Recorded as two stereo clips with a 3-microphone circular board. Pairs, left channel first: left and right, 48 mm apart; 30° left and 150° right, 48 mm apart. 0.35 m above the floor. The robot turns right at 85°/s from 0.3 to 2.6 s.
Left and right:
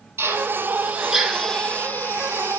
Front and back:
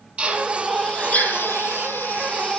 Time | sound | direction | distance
0.2 | a drill | 85° right | 3 m